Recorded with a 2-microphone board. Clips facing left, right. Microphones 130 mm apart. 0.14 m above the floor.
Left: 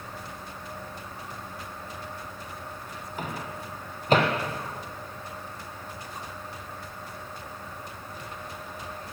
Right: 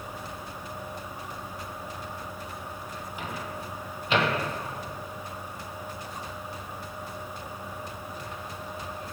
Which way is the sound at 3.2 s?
45° left (ahead or behind).